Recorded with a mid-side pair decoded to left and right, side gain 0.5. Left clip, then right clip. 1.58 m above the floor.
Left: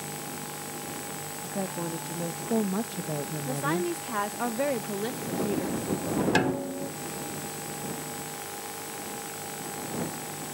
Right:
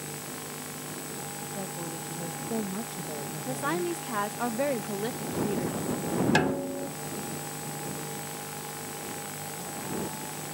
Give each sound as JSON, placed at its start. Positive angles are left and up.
{"t": 1.4, "sound": "a woman speaking", "azimuth_deg": 35}
{"t": 3.5, "sound": "a woman speaking", "azimuth_deg": 0}
{"t": 6.3, "sound": "a snare drum", "azimuth_deg": -5}